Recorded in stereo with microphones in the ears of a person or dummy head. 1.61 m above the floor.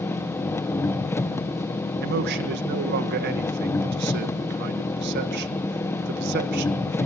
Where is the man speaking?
65° right (ahead or behind), 1.7 m.